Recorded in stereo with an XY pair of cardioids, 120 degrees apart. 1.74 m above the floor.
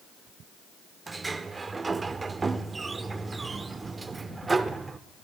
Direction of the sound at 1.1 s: 25° right.